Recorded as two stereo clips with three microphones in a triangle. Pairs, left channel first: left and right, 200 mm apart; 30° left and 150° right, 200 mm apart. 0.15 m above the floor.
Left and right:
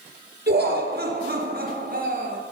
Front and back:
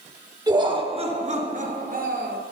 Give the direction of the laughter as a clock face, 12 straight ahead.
3 o'clock.